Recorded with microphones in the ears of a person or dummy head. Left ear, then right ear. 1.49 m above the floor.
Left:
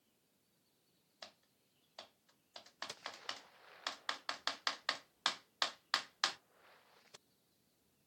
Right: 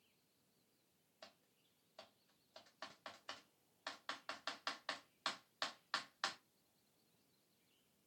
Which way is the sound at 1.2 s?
25° left (ahead or behind).